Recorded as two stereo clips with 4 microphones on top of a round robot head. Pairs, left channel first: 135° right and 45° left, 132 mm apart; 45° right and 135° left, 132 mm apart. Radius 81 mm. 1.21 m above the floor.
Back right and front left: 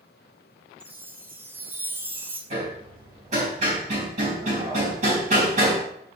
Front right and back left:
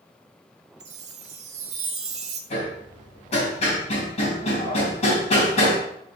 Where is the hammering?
5° left, 4 m.